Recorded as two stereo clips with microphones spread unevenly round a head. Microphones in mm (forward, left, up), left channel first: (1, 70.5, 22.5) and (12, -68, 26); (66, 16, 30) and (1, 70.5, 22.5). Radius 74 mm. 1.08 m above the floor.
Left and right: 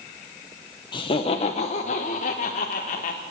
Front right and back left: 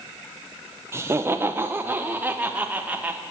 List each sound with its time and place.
0.9 s laughter: 120° left, 0.8 m; by 3.2 s 70° left, 1.6 m